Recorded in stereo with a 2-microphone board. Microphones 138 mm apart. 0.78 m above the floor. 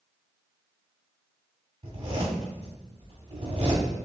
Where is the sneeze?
I don't hear a sneeze.